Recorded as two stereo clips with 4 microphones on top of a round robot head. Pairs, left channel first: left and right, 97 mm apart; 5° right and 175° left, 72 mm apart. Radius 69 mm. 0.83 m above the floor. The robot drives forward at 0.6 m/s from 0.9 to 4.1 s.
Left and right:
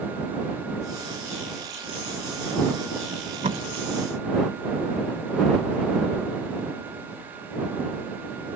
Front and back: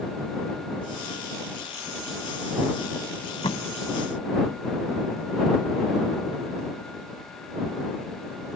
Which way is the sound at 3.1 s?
35° right.